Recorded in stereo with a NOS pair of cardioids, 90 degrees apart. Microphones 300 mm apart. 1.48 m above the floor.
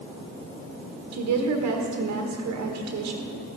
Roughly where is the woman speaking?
Ahead right.